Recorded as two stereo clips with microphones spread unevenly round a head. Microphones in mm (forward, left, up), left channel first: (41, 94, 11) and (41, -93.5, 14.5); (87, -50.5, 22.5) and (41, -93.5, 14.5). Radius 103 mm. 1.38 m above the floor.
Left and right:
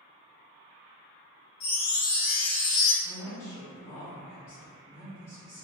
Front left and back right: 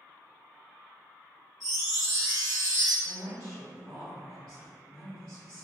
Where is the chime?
125° left, 0.9 m.